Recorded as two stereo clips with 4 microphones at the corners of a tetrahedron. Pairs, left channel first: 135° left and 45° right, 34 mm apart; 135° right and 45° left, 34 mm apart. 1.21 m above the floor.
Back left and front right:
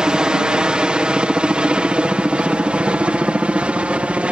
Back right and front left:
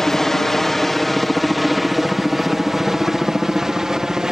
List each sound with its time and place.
0.0 s a helicopter: 70° right; by 4.3 s 20° right